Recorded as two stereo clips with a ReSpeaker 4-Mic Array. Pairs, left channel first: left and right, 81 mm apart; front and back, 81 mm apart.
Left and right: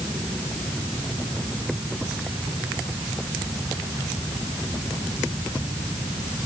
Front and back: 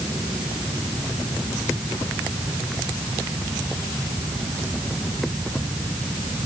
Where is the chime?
I don't hear a chime.